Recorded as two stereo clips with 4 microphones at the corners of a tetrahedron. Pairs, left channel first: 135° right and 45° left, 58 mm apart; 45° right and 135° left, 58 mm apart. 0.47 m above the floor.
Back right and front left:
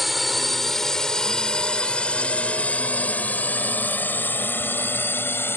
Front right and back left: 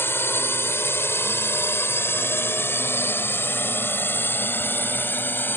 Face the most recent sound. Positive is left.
turn(degrees=-95)